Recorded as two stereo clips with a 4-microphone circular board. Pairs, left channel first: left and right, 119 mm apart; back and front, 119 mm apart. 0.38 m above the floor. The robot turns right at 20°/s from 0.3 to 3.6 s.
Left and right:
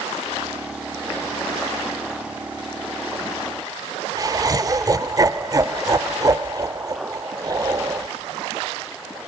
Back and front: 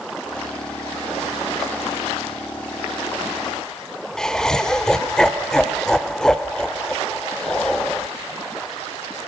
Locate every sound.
4.2 s laughter: 100° right, 1.0 m